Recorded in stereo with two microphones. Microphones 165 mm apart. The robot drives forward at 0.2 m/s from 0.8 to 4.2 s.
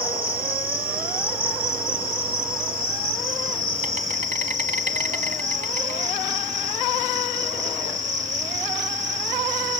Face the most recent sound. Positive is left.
turn(degrees=-45)  # may be behind; listen again after turning